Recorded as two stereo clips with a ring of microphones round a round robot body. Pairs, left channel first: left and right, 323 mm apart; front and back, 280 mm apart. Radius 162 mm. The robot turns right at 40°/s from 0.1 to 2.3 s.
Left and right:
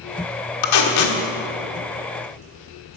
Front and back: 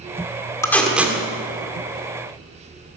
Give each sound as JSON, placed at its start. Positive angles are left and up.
{"t": 0.6, "sound": "tape being pulled", "azimuth_deg": 80, "distance_m": 1.8}